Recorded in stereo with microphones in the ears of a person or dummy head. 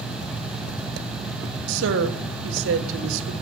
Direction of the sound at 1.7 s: 70° right (ahead or behind).